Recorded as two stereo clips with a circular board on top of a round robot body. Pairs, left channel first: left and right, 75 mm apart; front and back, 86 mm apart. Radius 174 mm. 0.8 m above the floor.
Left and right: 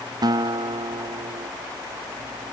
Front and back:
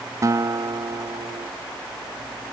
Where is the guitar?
125° right.